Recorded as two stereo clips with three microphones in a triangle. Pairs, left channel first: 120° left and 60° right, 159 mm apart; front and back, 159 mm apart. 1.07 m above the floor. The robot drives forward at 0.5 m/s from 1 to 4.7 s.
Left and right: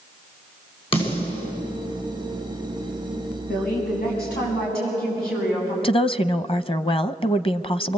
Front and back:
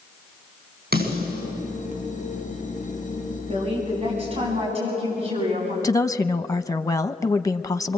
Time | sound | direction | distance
0.9 | a snare drum | 175° left | 9 m
3.5 | a woman speaking | 125° left | 10 m
5.8 | a woman speaking | 65° left | 0.7 m